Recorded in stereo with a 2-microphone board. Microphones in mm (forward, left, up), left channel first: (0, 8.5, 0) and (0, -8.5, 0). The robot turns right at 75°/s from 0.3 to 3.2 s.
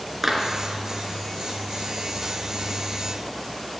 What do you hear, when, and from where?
0.2 s a clap: 10° right (ahead or behind), 3.5 m; by 0.5 s centre (ahead or behind), 3.5 m